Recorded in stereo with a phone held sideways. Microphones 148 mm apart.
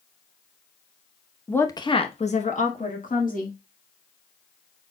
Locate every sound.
1.5 s a woman speaking: 10° left (ahead or behind), 0.7 m; by 3.6 s 70° left (ahead or behind), 2 m